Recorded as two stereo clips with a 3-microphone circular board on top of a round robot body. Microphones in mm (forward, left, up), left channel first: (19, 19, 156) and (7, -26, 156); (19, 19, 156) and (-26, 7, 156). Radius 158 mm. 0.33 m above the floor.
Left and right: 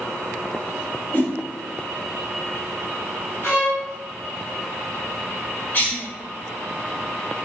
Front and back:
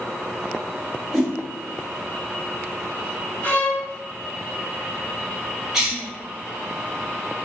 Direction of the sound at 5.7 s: 110° left.